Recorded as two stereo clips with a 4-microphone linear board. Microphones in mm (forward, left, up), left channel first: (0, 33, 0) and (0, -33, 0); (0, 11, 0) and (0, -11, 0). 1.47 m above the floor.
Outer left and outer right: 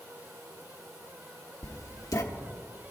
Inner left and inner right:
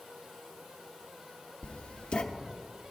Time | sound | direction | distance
1.6 | writing | 55° left (ahead or behind) | 0.8 m